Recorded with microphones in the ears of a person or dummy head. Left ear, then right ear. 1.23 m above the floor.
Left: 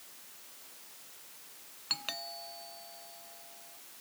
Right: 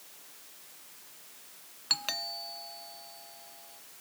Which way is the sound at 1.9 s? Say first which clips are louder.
Right 5 dB; 10° right (ahead or behind).